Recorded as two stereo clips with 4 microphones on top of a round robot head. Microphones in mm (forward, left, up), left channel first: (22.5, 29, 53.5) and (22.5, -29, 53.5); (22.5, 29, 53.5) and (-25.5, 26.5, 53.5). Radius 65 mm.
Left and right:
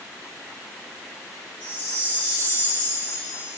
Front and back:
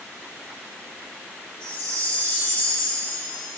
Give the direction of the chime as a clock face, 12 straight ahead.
11 o'clock.